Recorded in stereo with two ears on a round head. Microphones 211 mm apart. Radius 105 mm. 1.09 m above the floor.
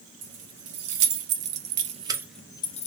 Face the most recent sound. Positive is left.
turn(degrees=30)  # may be behind; listen again after turning